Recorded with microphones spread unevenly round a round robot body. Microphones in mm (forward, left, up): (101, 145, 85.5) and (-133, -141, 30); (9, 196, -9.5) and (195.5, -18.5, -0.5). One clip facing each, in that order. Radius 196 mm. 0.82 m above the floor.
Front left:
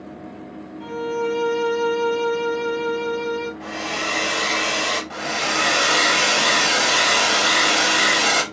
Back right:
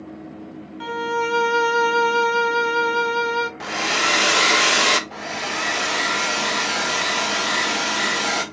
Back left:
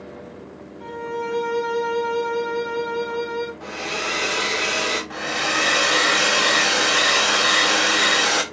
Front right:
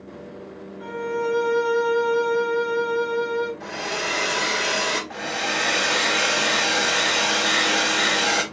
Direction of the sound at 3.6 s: 125° right.